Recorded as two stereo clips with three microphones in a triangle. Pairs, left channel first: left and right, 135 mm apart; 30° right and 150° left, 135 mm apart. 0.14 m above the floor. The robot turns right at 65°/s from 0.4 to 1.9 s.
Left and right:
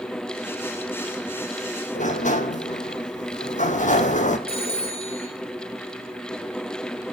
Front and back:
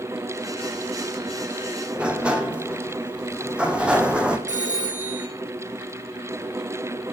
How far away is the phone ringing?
About 3.5 m.